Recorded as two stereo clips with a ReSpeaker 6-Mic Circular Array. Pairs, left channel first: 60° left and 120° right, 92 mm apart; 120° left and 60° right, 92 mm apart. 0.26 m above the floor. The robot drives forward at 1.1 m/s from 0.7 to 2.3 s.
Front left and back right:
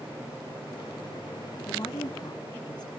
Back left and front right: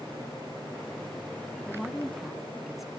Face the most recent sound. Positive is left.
turn(degrees=30)